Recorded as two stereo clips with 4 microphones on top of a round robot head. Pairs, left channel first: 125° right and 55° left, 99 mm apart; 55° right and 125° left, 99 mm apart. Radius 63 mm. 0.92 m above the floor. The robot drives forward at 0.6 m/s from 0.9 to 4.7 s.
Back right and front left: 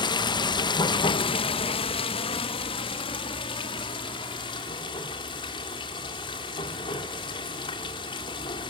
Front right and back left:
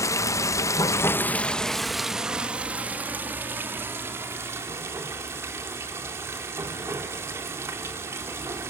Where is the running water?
105° right, 0.7 m; by 8.7 s 165° right, 2.5 m.